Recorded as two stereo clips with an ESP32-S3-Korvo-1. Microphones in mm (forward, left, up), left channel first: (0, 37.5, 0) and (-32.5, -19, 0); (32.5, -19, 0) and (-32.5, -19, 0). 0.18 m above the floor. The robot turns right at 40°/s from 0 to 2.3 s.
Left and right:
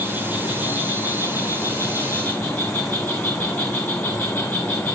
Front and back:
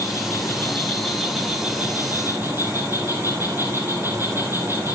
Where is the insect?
35° left, 5.5 m; by 4.9 s 125° left, 5.5 m.